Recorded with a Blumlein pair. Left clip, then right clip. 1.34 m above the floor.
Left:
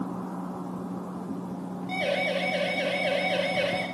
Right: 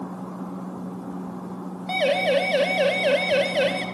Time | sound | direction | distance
1.9 | a siren | 65° right | 9.5 m